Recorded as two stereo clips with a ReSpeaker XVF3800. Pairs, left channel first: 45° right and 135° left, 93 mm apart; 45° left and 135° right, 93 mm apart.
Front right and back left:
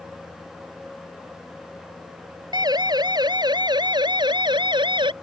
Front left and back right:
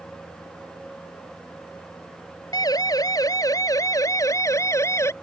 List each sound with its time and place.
2.5 s a siren: 90° left; by 5.1 s 105° left